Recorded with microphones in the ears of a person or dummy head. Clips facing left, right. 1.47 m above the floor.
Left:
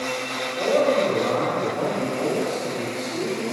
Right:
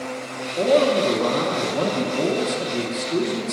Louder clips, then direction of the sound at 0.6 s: Right 2 dB; 70° right (ahead or behind).